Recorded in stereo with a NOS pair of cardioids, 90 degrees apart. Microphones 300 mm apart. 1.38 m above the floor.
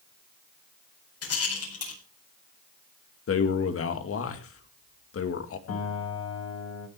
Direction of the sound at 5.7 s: 55° left.